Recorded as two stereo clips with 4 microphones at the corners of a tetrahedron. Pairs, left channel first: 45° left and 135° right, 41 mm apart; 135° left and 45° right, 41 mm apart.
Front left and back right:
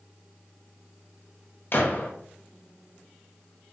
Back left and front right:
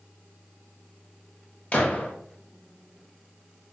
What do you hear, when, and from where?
1.7 s a gunshot: 85° left, 0.9 m